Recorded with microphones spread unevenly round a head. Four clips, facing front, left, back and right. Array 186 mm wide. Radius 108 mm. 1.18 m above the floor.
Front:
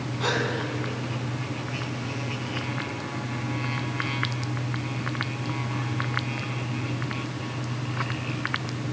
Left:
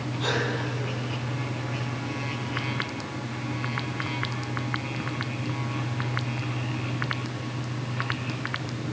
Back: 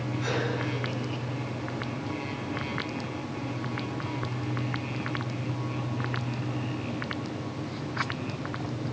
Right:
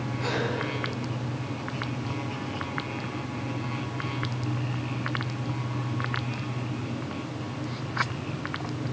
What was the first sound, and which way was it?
A gasp, 5° left.